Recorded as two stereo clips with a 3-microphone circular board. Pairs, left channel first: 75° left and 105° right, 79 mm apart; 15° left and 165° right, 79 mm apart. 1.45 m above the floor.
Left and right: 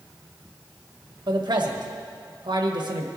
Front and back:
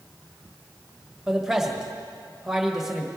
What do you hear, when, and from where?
1.3 s a man speaking: 80° right, 1.3 m